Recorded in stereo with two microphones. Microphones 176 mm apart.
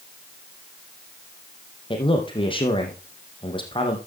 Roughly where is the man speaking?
Left.